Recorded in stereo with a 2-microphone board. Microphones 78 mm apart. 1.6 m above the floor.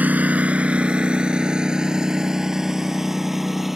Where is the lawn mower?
20° right (ahead or behind); by 3.8 s centre (ahead or behind).